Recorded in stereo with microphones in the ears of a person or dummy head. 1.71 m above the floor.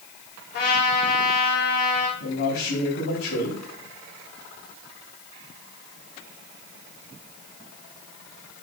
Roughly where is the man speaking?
Left.